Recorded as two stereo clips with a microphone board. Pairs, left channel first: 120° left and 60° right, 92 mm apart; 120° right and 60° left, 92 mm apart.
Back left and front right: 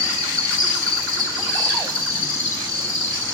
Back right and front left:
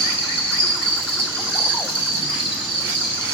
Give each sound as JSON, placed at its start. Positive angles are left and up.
{"t": 0.0, "sound": "an insect", "azimuth_deg": -110, "distance_m": 0.8}